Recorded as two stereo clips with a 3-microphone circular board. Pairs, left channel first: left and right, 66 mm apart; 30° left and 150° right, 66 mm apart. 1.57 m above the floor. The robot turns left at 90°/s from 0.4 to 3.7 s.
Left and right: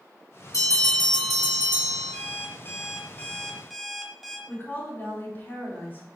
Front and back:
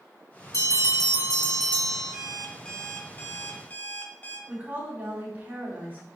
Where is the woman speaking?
145° left, 3.5 m.